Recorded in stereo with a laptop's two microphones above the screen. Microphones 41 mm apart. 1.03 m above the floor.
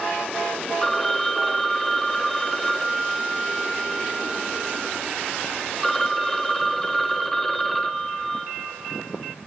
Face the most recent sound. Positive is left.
turn(degrees=5)  # may be behind; listen again after turning